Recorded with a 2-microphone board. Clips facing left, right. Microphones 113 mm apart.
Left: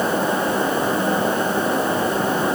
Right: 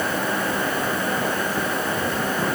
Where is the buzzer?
I don't hear a buzzer.